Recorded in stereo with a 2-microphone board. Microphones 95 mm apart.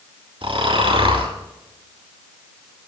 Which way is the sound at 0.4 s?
70° right (ahead or behind).